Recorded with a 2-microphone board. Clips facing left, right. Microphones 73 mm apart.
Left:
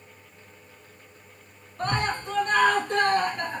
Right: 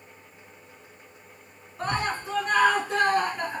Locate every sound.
1.8 s a scream: 5° right (ahead or behind), 1.4 m